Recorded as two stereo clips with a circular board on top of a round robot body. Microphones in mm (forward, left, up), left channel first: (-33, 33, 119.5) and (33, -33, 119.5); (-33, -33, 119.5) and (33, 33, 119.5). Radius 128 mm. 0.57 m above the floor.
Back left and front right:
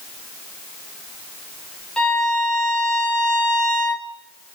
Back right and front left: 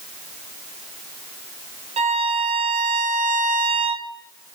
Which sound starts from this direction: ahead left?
A violin, at 2.0 s.